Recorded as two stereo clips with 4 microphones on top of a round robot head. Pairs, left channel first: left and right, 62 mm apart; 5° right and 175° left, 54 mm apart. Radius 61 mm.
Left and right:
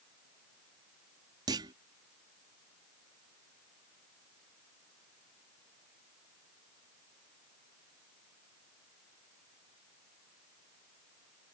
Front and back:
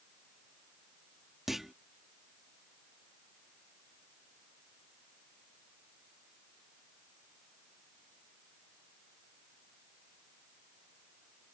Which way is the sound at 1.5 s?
100° right.